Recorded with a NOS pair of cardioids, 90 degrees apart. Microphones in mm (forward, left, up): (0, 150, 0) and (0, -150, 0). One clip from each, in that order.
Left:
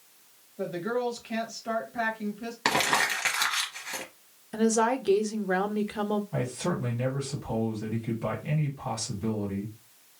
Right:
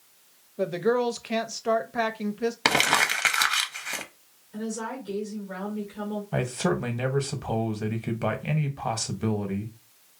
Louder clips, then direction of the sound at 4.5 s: Left 9 dB; 70° left.